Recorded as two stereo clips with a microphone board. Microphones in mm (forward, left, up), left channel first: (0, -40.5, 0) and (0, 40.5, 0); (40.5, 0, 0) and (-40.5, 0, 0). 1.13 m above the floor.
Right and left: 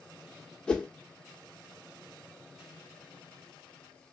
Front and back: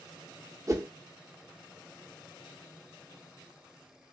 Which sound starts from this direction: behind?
A whoosh, at 0.7 s.